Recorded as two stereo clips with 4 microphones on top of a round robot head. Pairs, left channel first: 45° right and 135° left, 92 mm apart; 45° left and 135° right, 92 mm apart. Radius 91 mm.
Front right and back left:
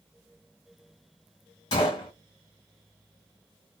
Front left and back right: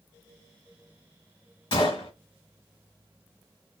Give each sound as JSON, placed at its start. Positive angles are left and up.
{"t": 1.7, "sound": "a gunshot", "azimuth_deg": 0, "distance_m": 1.2}